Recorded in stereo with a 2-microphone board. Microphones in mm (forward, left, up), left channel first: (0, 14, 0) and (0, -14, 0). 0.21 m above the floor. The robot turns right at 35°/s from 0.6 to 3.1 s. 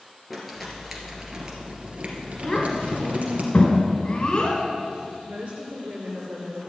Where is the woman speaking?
65° right (ahead or behind), 3.5 m.